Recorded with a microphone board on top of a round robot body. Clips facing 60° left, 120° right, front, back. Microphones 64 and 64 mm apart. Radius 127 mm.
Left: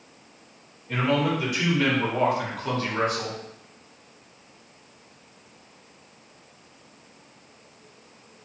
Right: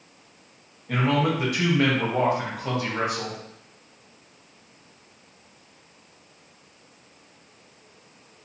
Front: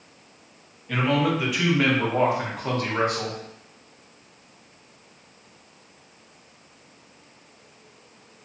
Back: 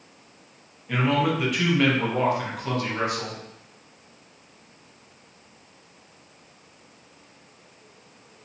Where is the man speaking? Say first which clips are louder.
Right 1 dB, even; 100° right, 1.3 m; by 3.4 s 30° right, 1.2 m.